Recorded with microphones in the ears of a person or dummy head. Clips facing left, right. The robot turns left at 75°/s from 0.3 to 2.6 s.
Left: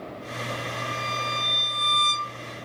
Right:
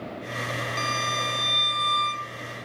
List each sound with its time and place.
0.8 s a violin: 120° right; by 2.3 s 120° left